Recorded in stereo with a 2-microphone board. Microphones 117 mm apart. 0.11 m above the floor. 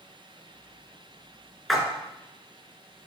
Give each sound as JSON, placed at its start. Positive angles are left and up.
{"t": 1.7, "sound": "a splash", "side_deg": 0, "distance_m": 1.3}